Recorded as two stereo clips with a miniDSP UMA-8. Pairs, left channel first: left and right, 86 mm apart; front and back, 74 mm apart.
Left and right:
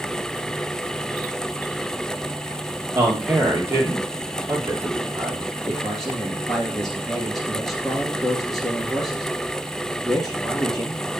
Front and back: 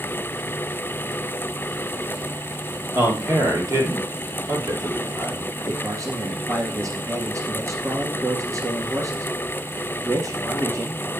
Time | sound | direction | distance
3.0 | a man speaking | 145° right | 2.5 m
5.7 | a man speaking | 175° left | 2 m